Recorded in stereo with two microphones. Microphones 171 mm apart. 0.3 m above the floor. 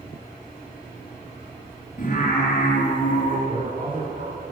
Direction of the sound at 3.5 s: 60° right (ahead or behind).